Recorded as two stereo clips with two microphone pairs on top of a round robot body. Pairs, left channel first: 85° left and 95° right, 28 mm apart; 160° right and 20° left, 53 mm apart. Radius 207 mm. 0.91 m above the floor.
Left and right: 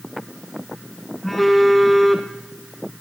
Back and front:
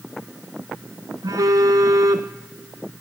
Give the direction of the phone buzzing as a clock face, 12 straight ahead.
12 o'clock.